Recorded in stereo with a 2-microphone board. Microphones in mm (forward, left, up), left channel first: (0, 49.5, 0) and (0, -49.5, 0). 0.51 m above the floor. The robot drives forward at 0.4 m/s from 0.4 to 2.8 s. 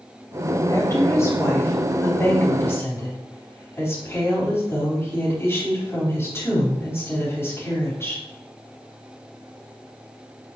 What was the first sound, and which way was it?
A woman speaking, 30° left (ahead or behind).